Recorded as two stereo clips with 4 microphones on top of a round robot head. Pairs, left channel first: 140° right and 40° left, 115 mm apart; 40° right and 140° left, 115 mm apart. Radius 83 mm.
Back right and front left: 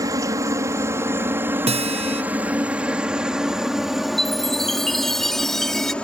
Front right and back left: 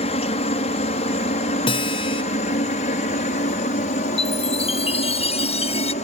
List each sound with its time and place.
0.0 s a helicopter: 20° right; by 6.0 s 60° right
1.7 s a guitar: 5° left
4.2 s a chime: 50° right